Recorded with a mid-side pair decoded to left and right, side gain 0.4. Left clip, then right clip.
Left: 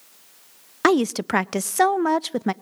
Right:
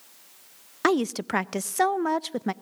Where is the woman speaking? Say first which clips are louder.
Left 5 dB; 30° left, 0.5 m.